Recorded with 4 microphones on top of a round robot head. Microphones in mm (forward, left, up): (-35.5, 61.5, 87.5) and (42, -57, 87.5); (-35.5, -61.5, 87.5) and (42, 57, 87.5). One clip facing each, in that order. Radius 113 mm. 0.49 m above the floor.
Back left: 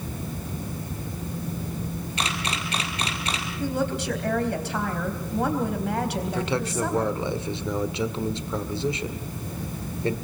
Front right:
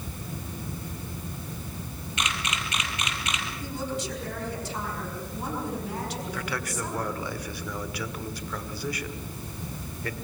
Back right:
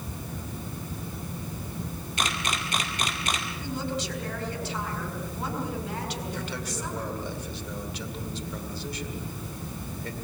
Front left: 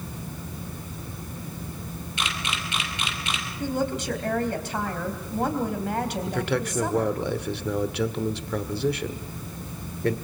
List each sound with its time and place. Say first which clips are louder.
2.2 s a camera shutter: back left 1 dB, back right 2 dB; 175° right, 2.5 m
3.6 s a woman speaking: back left 8 dB, front left 7 dB; 95° left, 3.5 m
6.3 s a man speaking: back left 6 dB, front left 8 dB; 60° left, 1.6 m